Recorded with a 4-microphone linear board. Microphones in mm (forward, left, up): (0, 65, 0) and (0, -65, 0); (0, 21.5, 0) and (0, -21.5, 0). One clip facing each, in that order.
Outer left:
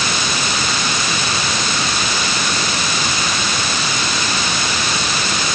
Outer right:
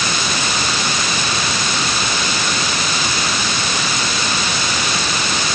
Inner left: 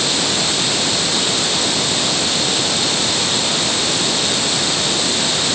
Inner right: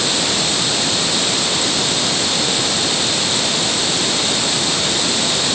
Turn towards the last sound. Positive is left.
No sound to turn to.